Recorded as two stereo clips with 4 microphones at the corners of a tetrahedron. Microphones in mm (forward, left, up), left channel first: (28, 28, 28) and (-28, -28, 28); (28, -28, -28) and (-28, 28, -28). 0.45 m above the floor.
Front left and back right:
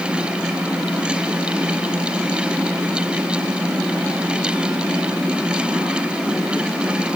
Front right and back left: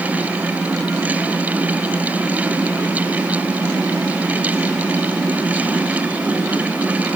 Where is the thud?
I don't hear a thud.